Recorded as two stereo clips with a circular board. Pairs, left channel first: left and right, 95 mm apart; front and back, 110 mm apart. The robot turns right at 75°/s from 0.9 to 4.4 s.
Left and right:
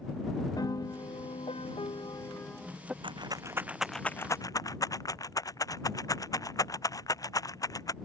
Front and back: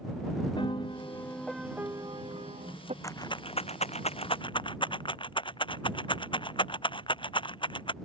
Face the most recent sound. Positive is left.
turn(degrees=40)